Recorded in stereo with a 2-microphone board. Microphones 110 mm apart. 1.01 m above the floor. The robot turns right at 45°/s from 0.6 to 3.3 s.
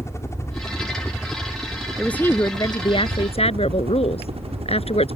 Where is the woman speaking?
5° left; by 5.2 s 65° left.